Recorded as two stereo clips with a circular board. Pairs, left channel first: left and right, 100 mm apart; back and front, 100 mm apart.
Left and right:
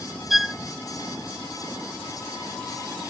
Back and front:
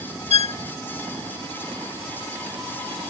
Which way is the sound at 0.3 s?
Straight behind.